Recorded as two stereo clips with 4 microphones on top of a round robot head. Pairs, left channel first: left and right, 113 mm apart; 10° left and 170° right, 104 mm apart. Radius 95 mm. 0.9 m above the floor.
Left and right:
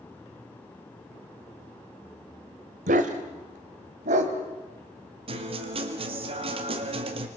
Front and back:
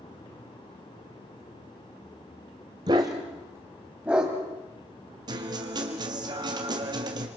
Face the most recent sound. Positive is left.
turn(degrees=-120)